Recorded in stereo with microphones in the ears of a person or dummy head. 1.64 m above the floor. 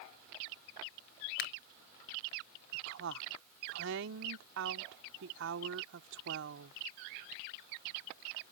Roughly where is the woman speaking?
Right.